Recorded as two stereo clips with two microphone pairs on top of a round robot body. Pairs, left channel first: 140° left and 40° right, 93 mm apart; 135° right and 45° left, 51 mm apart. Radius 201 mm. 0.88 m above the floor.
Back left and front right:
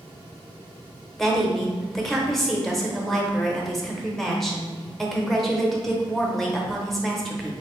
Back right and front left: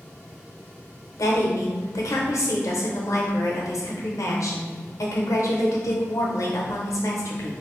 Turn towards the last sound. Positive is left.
turn(degrees=-130)